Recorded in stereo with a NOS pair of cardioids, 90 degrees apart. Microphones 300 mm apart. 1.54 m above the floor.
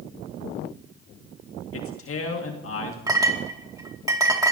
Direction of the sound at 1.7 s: 50° left.